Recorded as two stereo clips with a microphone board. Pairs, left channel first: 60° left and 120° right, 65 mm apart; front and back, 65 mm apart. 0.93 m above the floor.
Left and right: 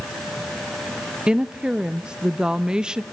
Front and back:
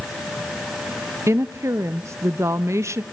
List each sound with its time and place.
1.3 s a woman speaking: 165° left, 0.6 m